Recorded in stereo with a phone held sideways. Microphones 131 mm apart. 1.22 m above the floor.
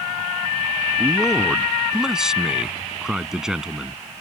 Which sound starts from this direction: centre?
A man speaking, at 1.0 s.